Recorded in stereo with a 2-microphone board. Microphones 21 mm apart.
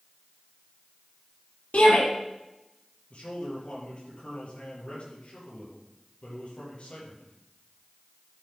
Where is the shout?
75° left (ahead or behind), 6 m.